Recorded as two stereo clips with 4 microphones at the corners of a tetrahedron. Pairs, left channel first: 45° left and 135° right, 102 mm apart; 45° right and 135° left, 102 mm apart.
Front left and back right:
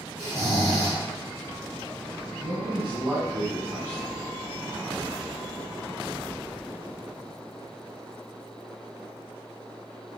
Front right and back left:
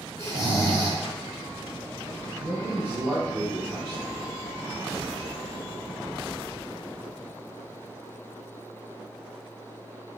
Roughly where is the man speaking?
Behind.